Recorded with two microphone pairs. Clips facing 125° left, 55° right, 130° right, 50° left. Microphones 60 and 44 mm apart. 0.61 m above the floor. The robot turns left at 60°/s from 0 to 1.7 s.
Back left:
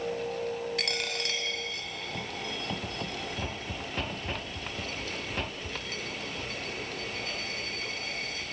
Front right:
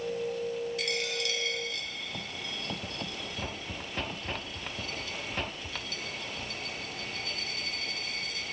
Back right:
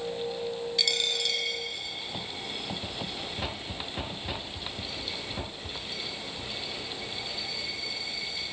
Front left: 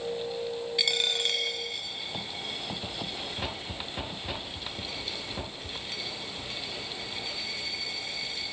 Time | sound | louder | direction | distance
0.8 | a dropped coin | even, front left 2 dB | 125° left | 0.9 m